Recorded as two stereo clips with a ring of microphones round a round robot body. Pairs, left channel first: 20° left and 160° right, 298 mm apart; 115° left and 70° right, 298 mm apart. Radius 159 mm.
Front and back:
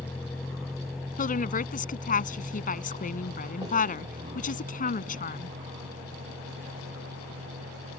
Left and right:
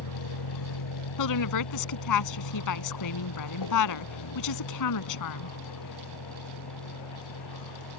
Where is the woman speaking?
85° left.